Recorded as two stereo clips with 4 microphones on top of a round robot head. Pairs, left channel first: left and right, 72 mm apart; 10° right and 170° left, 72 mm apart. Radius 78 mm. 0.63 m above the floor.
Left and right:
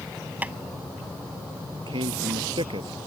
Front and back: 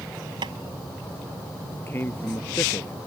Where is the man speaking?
75° right.